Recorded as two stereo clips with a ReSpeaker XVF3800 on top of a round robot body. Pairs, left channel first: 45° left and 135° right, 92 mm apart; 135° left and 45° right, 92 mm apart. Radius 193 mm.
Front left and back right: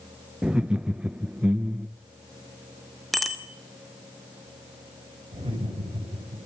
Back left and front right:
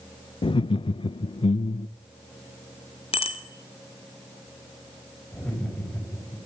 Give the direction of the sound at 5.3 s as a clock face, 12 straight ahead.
5 o'clock.